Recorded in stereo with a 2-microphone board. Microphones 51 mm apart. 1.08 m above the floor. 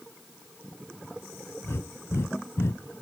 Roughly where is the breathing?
Left.